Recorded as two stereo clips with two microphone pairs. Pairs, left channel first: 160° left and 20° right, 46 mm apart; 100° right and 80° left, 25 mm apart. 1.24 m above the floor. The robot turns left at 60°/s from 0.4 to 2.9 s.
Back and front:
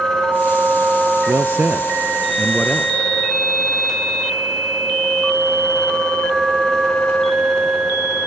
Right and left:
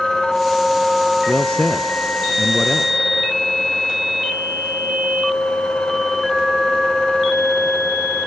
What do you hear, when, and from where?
1.3 s a man speaking: 40° right, 0.5 m; by 3.1 s 135° right, 0.5 m